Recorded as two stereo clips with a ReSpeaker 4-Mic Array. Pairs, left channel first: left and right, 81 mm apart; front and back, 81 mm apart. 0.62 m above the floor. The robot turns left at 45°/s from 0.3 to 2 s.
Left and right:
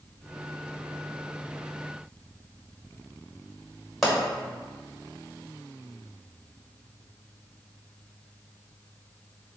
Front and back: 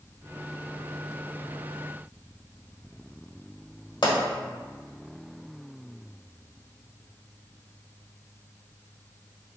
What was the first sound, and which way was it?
A pop, 5° left.